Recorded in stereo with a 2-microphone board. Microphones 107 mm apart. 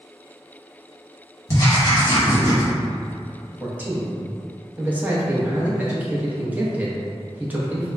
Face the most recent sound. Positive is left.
turn(degrees=-15)  # may be behind; listen again after turning